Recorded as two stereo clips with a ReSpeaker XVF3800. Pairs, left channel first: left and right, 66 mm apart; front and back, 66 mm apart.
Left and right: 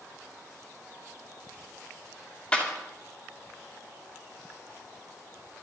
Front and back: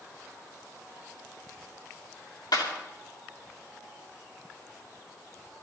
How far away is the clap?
About 3 m.